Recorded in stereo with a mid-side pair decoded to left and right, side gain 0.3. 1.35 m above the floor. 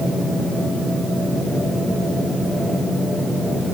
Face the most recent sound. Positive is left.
No sound to turn to.